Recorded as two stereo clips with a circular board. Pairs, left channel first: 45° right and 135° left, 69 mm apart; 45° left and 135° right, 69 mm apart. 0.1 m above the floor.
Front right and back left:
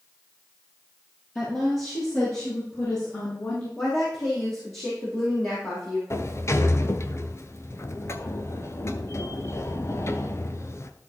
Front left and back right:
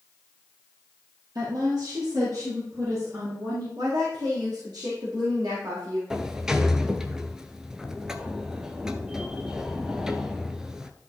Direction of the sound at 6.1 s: 60° right.